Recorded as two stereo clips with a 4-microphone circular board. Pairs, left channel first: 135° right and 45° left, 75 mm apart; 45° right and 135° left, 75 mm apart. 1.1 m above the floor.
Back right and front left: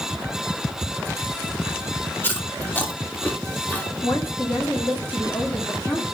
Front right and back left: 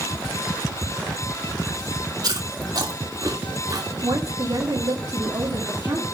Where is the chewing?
160° left, 1.8 m.